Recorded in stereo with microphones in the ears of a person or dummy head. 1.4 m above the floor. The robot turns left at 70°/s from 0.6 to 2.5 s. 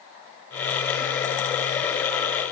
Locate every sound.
Only background noise.